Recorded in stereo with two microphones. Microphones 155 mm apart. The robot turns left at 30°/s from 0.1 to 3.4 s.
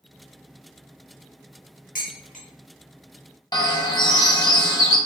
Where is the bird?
30° left (ahead or behind), 0.6 m.